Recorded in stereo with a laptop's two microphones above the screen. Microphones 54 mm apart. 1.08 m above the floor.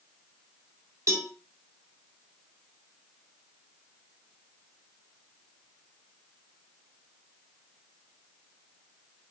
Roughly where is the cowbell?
Right.